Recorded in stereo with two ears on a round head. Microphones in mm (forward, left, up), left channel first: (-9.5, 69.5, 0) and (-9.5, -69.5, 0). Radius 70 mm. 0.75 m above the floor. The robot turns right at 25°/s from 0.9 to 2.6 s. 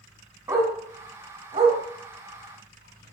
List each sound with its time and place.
0.5 s a dog barking: 20° right (ahead or behind), 2.5 m; by 3.1 s 60° right (ahead or behind), 2.5 m